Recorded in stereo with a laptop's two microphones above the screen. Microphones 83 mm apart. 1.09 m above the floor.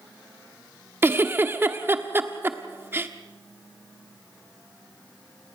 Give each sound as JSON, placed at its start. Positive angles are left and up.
{"t": 1.0, "sound": "a giggle", "side_deg": -25, "distance_m": 1.3}